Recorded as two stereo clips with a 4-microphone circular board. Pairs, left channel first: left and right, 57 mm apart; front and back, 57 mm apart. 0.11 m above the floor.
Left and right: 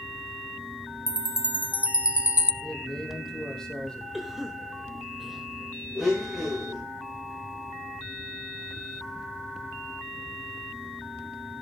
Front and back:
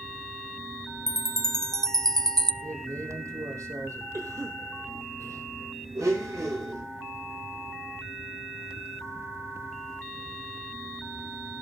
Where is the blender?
175° right, 8.5 m.